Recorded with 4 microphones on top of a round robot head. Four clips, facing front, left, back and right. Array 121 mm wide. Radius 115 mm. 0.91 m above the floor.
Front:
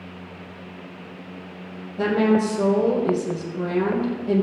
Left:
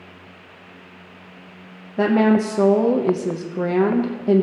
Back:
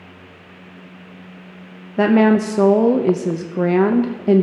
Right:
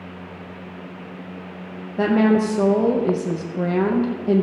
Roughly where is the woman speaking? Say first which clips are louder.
Left 1 dB, back 5 dB; behind.